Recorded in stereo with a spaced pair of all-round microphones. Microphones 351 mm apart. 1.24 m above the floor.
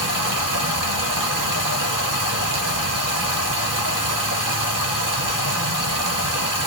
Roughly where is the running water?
Right.